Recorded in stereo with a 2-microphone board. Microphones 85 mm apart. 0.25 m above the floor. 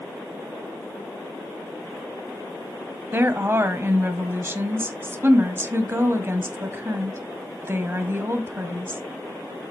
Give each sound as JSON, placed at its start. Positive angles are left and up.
{"t": 3.1, "sound": "a woman speaking", "side_deg": -30, "distance_m": 1.5}